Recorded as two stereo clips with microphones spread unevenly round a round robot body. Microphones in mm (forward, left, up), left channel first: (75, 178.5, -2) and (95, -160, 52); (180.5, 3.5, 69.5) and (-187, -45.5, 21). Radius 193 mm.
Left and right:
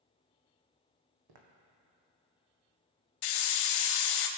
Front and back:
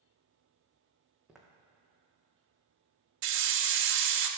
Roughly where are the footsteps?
Right.